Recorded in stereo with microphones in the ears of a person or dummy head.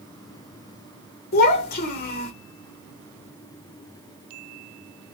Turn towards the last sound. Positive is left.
turn(degrees=50)  # may be behind; listen again after turning